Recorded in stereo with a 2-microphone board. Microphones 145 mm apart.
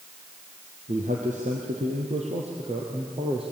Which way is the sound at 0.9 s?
60° right (ahead or behind).